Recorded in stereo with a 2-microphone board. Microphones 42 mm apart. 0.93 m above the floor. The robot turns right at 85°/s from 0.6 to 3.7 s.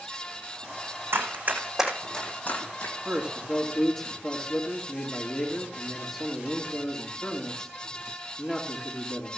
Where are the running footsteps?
65° right (ahead or behind), 3 m; by 3.0 s 60° left (ahead or behind), 1.7 m.